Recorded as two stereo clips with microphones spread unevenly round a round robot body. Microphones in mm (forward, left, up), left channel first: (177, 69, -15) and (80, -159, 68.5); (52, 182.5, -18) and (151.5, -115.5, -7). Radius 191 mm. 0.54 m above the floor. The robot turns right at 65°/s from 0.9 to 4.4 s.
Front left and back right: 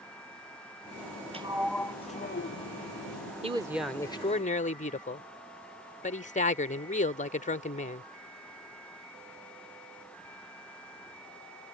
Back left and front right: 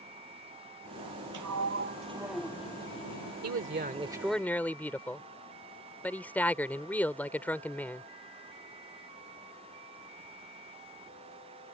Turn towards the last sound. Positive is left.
turn(degrees=25)